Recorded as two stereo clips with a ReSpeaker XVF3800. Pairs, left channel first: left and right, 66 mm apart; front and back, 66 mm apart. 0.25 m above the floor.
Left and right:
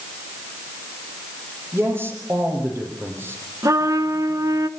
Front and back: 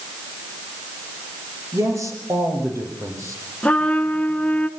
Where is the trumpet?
70° right, 1.1 m.